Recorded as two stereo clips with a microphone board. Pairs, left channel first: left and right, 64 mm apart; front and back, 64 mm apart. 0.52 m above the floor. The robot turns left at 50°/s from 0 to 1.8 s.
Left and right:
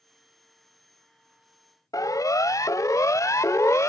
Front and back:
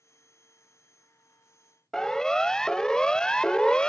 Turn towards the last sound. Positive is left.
turn(degrees=70)